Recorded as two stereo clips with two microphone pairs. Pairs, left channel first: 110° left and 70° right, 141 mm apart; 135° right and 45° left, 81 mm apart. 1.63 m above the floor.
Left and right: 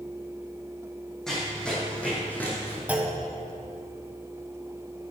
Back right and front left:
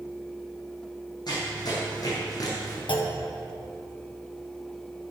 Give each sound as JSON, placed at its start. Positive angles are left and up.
{"t": 1.3, "sound": "running footsteps", "azimuth_deg": -165, "distance_m": 4.5}
{"t": 2.9, "sound": "a clunk", "azimuth_deg": -150, "distance_m": 1.4}